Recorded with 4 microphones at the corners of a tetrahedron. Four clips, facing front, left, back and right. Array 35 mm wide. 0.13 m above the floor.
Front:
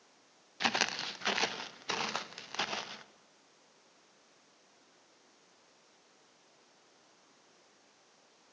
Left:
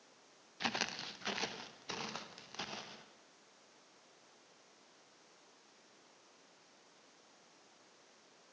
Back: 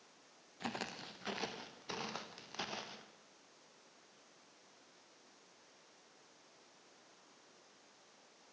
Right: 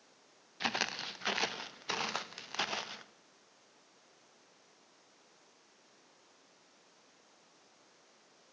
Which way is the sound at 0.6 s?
15° right.